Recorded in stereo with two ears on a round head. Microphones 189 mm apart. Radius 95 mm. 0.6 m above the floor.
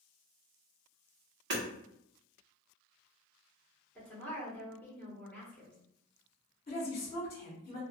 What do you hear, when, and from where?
1.5 s hammering: 60° right (ahead or behind), 1.2 m
4.0 s a woman speaking: 10° left (ahead or behind), 1.4 m
6.7 s a woman speaking: 30° left (ahead or behind), 1.2 m